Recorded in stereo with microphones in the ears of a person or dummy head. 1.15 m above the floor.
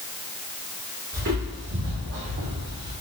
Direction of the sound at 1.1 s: 55° right (ahead or behind).